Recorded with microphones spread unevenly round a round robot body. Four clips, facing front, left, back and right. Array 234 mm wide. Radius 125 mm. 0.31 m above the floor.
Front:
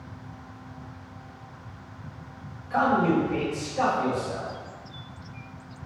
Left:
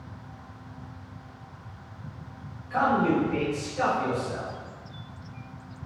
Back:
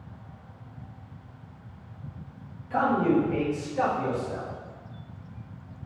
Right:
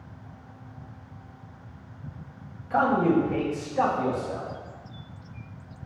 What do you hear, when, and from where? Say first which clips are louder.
2.7 s a man speaking: right 2 dB, front 1 dB; 90° right, 1.9 m; by 4.5 s 80° right, 3 m